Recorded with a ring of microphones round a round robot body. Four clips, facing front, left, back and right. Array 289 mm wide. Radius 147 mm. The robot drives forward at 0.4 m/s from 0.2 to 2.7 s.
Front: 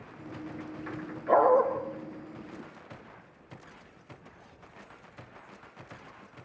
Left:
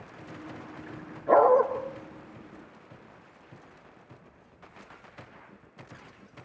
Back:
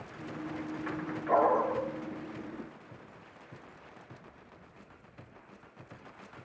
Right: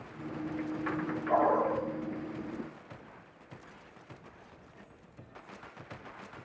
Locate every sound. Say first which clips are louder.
1.3 s a dog barking: left 8 dB, front 4 dB; 95° left, 6.5 m